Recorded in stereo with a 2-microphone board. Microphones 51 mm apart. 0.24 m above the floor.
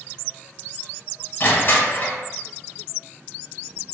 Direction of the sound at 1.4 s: 40° left (ahead or behind).